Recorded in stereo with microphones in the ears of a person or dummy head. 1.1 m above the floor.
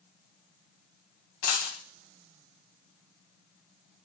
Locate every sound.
1.4 s a dropped coin: 50° left (ahead or behind), 0.9 m